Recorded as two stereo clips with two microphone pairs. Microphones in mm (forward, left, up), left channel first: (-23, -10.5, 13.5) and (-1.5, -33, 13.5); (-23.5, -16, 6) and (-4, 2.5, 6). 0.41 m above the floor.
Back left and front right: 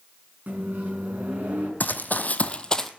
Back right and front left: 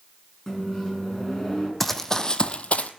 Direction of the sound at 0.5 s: 70° right.